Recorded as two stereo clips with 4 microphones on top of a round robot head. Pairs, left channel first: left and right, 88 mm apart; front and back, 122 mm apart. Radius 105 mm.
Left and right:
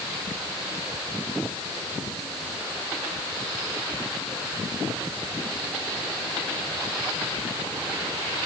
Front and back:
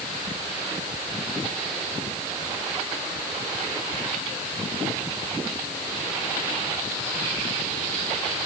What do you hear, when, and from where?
Only background noise.